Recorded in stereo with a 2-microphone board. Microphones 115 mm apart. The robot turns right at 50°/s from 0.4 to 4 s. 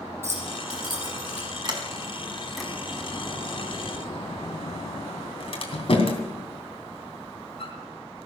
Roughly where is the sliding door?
Right.